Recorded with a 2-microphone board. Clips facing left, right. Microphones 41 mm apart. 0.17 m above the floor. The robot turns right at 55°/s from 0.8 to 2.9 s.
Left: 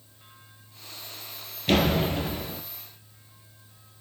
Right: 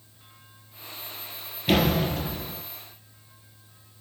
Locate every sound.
1.7 s a door slam: 10° right, 2.5 m; by 2.6 s 45° left, 2.5 m